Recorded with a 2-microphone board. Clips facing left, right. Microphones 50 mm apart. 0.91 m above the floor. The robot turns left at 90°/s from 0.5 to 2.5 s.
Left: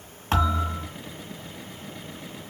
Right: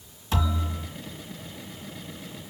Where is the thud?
125° left, 3.5 m; by 0.9 s 85° left, 3.5 m.